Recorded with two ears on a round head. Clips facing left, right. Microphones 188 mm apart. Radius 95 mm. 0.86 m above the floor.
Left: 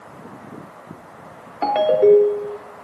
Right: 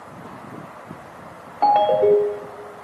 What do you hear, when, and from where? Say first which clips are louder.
1.6 s a ringtone: left 2 dB; 25° left (ahead or behind), 0.7 m